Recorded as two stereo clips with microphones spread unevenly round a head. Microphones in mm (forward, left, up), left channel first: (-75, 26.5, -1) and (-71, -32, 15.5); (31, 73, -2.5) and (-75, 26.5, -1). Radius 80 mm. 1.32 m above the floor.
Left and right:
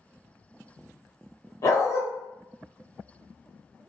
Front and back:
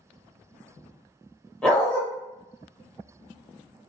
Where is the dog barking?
100° left, 0.9 m.